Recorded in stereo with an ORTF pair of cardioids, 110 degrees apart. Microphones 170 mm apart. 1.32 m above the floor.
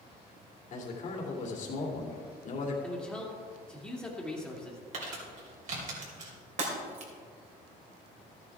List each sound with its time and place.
0.7 s a man speaking: 50° left, 2.5 m
2.8 s a man speaking: 5° left, 2.5 m
4.9 s crumpling: 50° right, 4.5 m
6.6 s breaking glass: 45° right, 3.5 m